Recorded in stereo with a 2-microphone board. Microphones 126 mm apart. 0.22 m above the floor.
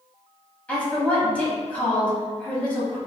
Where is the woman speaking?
10° left (ahead or behind), 1.1 m.